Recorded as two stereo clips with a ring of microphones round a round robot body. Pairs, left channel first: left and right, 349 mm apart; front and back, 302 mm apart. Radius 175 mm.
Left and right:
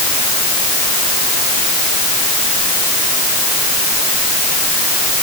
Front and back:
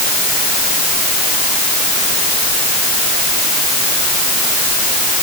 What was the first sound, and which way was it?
Only background noise.